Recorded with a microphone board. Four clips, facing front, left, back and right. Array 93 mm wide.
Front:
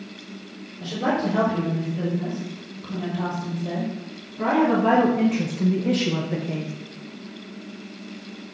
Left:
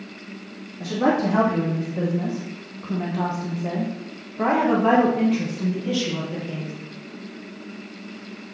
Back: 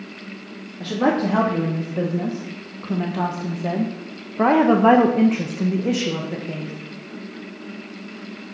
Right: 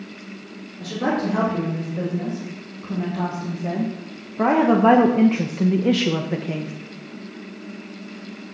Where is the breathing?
I don't hear breathing.